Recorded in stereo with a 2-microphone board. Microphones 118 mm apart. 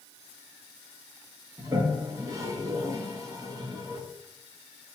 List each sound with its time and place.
1.6 s a toilet flushing: 30° right (ahead or behind), 1.5 m